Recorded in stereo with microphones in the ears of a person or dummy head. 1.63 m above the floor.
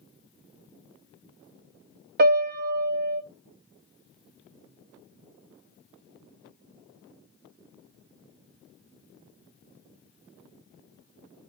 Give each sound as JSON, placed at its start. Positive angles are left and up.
{"t": 2.2, "sound": "a piano", "side_deg": -50, "distance_m": 0.6}